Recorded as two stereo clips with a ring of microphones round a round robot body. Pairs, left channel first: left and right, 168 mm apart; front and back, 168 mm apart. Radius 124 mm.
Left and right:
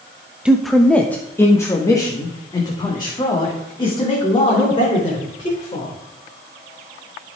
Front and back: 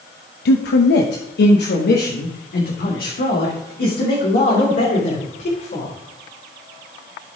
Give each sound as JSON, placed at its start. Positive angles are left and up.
{"t": 0.5, "sound": "a man speaking", "azimuth_deg": -5, "distance_m": 0.8}